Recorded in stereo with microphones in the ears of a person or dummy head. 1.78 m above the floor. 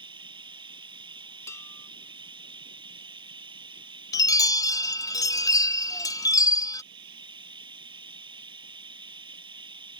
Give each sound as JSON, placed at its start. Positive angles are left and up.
{"t": 0.0, "sound": "running water", "side_deg": -25}
{"t": 1.5, "sound": "dishes clattering", "side_deg": 20}
{"t": 4.1, "sound": "a chime", "side_deg": 20}